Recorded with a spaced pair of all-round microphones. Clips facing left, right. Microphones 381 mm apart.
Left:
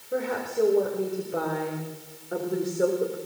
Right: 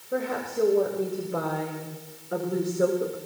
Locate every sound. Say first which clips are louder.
0.1 s a woman speaking: left 1 dB; centre (ahead or behind), 5.5 m; by 3.2 s 5° right (ahead or behind), 4 m